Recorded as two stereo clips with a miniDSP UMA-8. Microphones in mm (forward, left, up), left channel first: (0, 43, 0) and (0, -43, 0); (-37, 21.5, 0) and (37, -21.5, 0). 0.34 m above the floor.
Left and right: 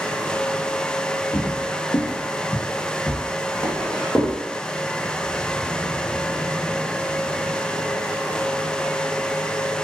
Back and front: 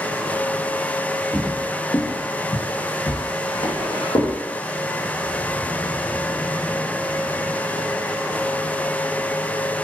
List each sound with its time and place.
1.3 s footsteps: 60° left, 0.7 m; by 4.3 s 165° left, 1.6 m